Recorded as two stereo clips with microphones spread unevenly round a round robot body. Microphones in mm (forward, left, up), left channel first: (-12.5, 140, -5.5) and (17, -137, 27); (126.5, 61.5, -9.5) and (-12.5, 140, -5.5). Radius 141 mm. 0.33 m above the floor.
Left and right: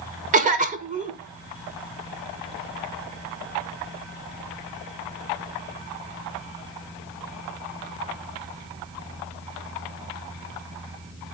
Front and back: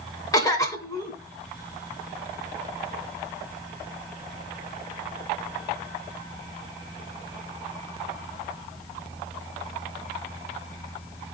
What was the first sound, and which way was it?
A cough, 45° right.